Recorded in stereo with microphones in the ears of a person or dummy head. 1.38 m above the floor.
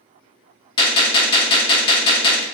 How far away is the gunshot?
About 1.0 m.